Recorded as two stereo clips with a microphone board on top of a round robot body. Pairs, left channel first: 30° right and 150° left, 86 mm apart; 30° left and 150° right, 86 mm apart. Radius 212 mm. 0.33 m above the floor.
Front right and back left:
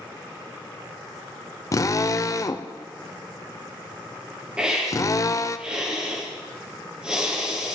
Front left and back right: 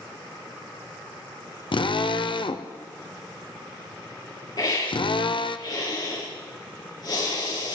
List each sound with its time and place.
1.7 s a drill: 20° left, 1.0 m
4.6 s a hiss: 70° left, 5.5 m